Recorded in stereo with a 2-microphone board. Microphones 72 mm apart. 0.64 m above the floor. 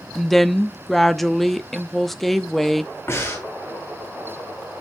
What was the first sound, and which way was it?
A woman speaking, centre (ahead or behind).